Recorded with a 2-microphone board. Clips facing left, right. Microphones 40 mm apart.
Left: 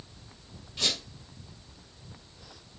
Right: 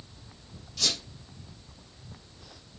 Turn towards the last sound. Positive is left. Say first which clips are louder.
# left 1 dB
turn(degrees=25)  # may be behind; listen again after turning